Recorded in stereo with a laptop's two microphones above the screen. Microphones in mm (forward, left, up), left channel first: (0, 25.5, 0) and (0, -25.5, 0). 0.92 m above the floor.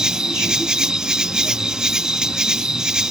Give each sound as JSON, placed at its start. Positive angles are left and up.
{"t": 0.0, "sound": "an insect", "side_deg": -10}